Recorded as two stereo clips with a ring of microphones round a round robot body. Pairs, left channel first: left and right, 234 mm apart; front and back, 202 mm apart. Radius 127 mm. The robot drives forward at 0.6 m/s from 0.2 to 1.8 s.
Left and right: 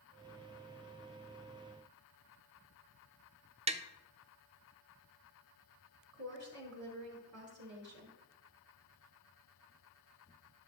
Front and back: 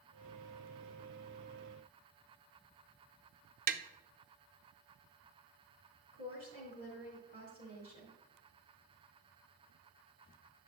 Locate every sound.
3.7 s tapping: 150° right, 0.5 m
6.1 s a woman speaking: 115° right, 3 m